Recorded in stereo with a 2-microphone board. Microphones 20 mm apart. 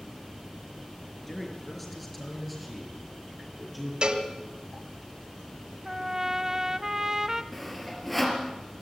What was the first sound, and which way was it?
A man speaking, 5° left (ahead or behind).